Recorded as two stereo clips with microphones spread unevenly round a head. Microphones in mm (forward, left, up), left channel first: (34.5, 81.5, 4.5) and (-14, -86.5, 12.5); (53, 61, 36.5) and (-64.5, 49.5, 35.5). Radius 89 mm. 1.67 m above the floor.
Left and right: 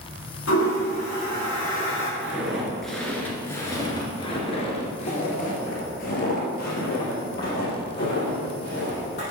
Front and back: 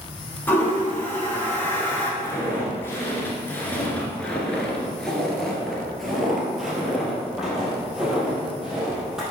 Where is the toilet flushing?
75° left, 3 m.